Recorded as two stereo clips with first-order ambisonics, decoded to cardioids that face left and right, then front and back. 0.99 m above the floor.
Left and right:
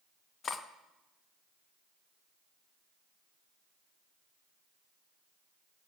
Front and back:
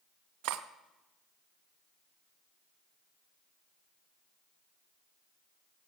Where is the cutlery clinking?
155° left, 0.6 m.